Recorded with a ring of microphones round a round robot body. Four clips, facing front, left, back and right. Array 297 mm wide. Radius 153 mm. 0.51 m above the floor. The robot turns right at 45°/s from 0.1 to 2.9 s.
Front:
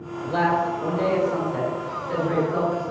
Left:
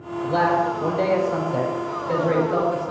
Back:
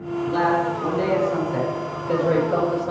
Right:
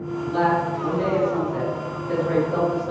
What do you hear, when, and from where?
0.2 s a man speaking: 60° left, 4 m; by 2.9 s straight behind, 4 m